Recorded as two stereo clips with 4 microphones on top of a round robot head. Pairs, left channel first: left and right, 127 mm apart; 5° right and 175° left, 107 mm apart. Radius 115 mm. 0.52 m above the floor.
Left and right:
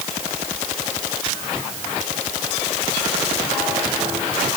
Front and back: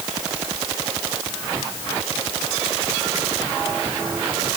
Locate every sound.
Only background noise.